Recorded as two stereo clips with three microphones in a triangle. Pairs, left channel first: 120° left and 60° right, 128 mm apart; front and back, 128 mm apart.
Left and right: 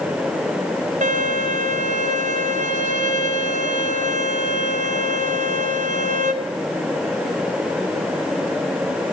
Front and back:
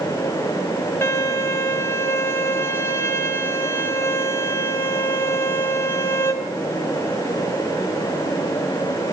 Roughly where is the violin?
Right.